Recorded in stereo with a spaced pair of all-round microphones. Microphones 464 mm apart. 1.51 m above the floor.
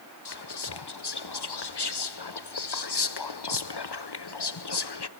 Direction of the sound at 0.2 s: 65° left (ahead or behind).